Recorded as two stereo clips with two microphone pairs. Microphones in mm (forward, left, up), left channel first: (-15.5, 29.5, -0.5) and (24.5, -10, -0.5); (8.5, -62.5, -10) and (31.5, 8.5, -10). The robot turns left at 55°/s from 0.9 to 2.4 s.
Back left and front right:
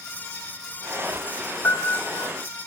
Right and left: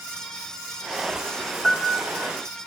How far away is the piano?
About 1.3 m.